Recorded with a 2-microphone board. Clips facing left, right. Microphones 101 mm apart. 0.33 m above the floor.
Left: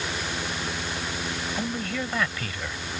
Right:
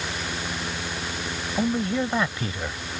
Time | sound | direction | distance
1.6 | a man speaking | 25° right (ahead or behind) | ?